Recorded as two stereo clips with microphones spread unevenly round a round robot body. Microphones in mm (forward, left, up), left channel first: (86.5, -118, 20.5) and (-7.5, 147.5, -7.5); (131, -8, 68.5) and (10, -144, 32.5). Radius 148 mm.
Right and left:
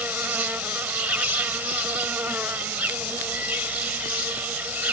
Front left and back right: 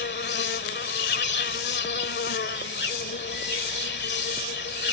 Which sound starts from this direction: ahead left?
An insect, at 0.0 s.